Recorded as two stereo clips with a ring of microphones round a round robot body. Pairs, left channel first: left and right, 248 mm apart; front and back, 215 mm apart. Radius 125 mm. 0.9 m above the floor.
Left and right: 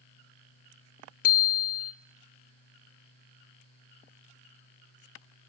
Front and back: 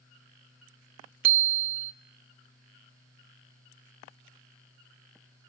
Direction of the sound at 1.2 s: 150° left.